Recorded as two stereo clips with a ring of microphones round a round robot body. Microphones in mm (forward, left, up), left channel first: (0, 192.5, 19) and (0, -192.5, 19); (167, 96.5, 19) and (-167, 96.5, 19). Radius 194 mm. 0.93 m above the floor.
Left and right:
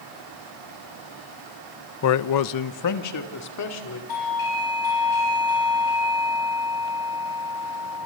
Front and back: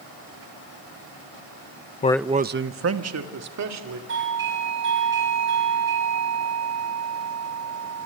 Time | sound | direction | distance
2.0 | a man speaking | 55° left | 0.6 m
4.1 | a doorbell | 125° left | 9.5 m